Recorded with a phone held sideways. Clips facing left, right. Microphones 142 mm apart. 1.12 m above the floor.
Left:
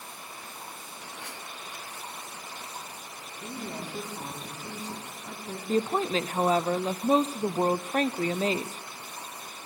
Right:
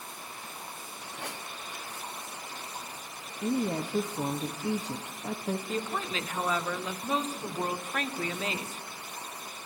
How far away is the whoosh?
About 2 m.